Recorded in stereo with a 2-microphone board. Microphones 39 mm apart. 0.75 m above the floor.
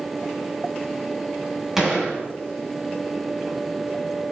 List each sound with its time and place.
1.8 s a gunshot: 10° right (ahead or behind), 4.5 m